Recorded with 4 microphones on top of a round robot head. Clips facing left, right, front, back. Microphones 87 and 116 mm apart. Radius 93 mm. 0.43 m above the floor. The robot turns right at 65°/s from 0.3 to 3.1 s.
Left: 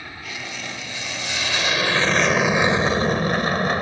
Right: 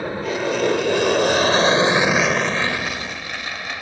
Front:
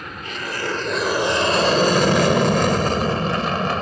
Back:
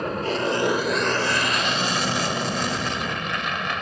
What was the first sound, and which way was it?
An aircraft, 130° right.